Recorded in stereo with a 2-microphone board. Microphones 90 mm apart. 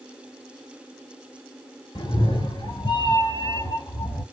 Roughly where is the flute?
No flute in this recording.